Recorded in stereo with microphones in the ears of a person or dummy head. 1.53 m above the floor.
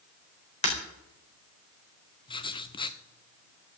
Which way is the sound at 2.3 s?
30° left (ahead or behind).